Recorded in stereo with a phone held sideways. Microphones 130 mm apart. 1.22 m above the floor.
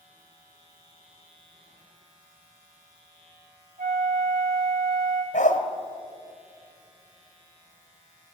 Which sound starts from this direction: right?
A flute, at 3.8 s.